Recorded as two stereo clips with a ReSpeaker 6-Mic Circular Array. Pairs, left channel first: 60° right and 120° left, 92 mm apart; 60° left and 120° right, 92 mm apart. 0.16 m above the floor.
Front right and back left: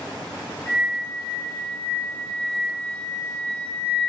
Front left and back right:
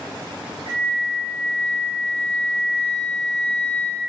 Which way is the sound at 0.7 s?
130° right.